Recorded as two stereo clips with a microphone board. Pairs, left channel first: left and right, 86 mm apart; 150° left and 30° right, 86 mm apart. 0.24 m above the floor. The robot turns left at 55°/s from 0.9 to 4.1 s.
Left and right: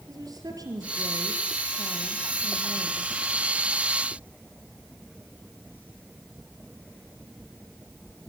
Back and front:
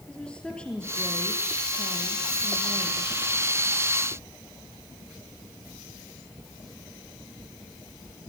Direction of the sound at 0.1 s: 130° right.